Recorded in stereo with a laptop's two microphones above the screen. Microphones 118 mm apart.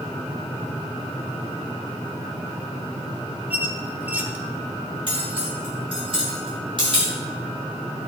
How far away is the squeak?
About 0.6 m.